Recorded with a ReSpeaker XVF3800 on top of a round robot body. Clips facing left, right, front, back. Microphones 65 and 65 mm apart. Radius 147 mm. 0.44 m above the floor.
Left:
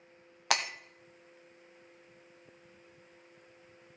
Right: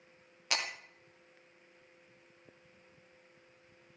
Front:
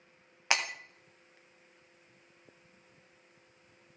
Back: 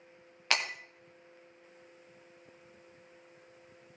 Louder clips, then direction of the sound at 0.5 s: Left 5 dB, front 1 dB; 75° left.